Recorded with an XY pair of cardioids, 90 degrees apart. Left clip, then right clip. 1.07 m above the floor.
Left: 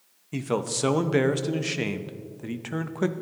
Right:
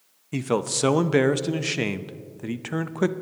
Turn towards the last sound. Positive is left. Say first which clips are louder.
# right 3 dB
turn(degrees=-25)